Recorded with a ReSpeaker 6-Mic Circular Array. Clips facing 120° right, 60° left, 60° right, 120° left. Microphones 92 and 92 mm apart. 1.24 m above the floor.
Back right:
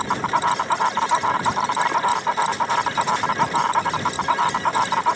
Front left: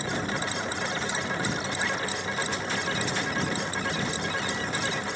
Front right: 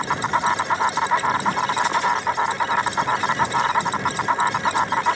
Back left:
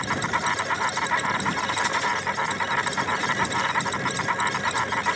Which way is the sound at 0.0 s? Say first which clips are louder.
Back right 10 dB, front right 5 dB; 125° right.